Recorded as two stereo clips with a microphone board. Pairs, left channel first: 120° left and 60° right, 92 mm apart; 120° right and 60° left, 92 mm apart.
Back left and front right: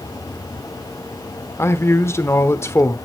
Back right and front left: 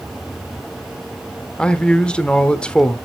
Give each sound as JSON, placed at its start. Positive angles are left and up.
{"t": 1.6, "sound": "a man speaking", "azimuth_deg": 165, "distance_m": 1.0}